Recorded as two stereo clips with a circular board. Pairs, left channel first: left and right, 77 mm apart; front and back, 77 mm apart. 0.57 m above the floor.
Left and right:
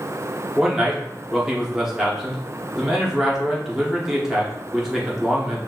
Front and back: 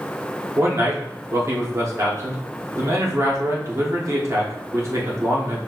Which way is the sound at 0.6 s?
170° right.